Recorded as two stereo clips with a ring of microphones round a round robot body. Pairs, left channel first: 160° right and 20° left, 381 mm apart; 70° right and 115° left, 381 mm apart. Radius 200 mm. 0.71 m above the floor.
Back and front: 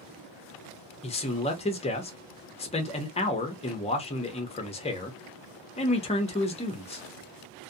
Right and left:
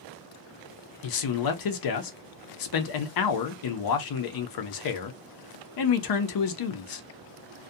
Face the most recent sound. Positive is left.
turn(degrees=-85)